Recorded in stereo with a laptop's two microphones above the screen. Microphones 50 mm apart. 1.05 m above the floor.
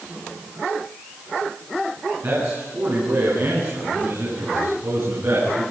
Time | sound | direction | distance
2.2 | a man speaking | 75° right (ahead or behind) | 9.5 m